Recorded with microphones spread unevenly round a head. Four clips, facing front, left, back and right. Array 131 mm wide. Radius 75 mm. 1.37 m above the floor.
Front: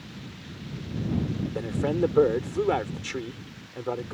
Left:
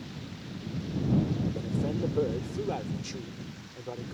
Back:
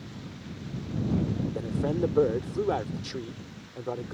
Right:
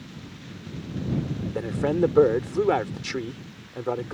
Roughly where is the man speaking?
Right.